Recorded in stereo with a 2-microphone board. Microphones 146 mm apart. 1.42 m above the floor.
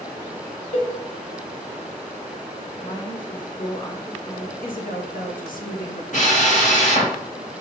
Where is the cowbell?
55° left (ahead or behind), 1.8 m.